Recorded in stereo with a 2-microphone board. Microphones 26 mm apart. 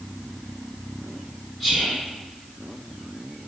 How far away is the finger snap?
I don't hear a finger snap.